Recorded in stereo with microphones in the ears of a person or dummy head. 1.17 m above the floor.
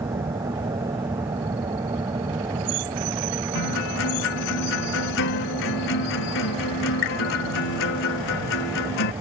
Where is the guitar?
70° left (ahead or behind).